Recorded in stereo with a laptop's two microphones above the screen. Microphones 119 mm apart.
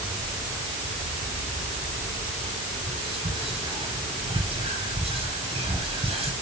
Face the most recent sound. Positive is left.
turn(degrees=-50)  # may be behind; listen again after turning